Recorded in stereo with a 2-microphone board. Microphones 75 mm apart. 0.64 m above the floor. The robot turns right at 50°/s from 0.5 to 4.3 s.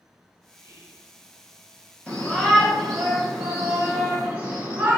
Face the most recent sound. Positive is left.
turn(degrees=-15)  # may be behind; listen again after turning